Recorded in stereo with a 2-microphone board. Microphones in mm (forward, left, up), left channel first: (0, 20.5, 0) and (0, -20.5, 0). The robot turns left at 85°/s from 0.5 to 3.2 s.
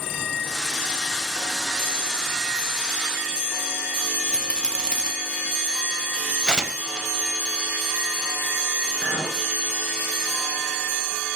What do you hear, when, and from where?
4.3 s a rattle: 20° left (ahead or behind), 3 m
6.5 s tearing paper: 15° right (ahead or behind), 1.2 m
9.0 s a clink: 45° left (ahead or behind), 3 m